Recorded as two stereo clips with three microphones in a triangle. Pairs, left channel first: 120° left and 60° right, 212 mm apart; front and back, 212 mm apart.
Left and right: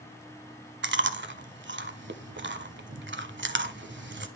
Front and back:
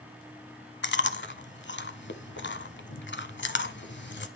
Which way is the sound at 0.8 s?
30° right.